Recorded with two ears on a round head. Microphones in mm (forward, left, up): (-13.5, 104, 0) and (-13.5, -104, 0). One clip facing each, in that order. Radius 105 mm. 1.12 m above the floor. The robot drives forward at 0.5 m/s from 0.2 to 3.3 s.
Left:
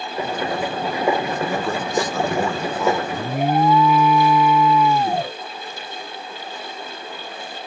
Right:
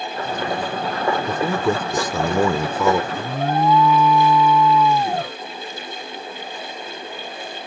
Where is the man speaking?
85° right; by 3.0 s 70° right (ahead or behind).